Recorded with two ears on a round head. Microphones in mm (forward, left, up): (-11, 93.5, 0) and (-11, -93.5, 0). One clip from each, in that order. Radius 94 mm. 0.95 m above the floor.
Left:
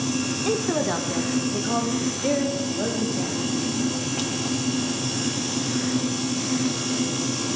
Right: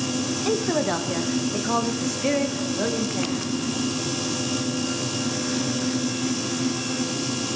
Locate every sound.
0.5 s a woman speaking: 10° right (ahead or behind), 1.0 m; by 3.5 s 35° right (ahead or behind), 2 m